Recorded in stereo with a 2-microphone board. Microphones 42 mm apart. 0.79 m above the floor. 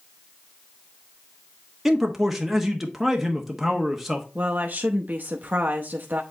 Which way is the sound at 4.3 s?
45° right (ahead or behind).